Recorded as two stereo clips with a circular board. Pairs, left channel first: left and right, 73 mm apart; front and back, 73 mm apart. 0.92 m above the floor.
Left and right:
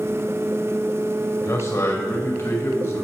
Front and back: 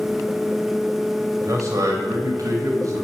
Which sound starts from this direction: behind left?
A man speaking, at 1.4 s.